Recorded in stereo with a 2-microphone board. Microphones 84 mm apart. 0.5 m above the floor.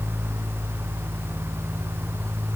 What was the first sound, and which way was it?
Only background noise.